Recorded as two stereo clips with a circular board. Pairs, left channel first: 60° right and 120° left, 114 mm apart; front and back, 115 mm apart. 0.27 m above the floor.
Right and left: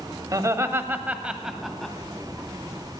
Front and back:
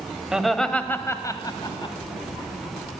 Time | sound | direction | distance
0.3 | laughter | 105° left | 1.2 m